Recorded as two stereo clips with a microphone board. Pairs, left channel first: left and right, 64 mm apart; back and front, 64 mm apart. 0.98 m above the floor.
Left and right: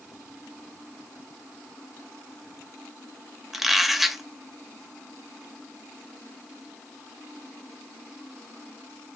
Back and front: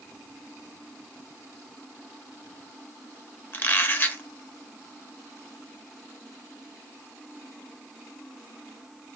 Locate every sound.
3.5 s a squeak: straight behind, 0.8 m